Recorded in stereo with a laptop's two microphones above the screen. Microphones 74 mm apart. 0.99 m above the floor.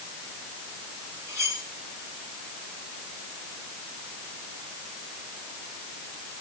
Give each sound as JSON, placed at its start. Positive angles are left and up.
{"t": 1.3, "sound": "cutlery clinking", "side_deg": -45, "distance_m": 8.0}